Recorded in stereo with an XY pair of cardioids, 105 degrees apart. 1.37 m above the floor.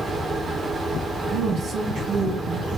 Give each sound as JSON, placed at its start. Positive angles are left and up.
{"t": 0.0, "sound": "a fan", "azimuth_deg": -30, "distance_m": 1.0}
{"t": 1.3, "sound": "a woman speaking", "azimuth_deg": -45, "distance_m": 1.2}